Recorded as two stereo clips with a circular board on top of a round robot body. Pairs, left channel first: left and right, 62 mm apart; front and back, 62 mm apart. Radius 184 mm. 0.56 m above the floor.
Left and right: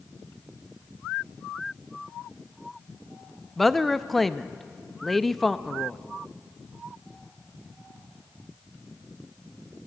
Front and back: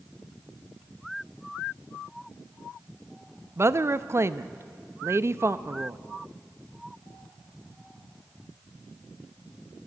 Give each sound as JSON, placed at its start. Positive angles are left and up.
{"t": 3.6, "sound": "a woman speaking", "azimuth_deg": 175, "distance_m": 0.8}